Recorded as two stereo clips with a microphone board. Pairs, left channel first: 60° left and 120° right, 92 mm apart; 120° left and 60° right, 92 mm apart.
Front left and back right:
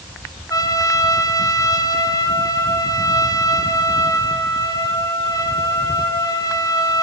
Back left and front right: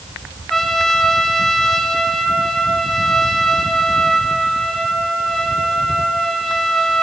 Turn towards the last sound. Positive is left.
turn(degrees=35)